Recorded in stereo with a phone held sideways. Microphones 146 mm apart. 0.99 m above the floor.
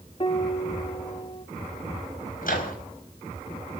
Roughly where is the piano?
Left.